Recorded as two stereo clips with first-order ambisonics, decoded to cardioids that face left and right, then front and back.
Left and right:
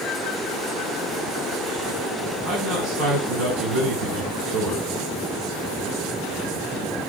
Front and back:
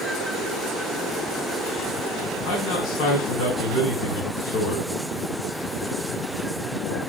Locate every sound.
2.4 s a man speaking: 35° right, 5.5 m